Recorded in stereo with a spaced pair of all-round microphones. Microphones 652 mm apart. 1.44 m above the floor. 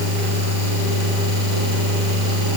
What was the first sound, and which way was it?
Only background noise.